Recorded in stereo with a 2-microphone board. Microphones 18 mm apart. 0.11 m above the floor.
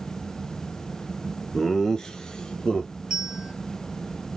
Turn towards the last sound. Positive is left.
turn(degrees=-35)  # may be behind; listen again after turning